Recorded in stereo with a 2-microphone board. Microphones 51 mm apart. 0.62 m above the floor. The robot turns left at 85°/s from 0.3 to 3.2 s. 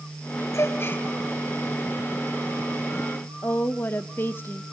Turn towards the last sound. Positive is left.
turn(degrees=45)  # may be behind; listen again after turning